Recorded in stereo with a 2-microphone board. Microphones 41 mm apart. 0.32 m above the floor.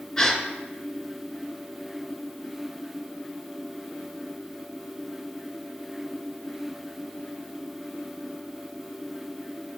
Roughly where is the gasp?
Centre.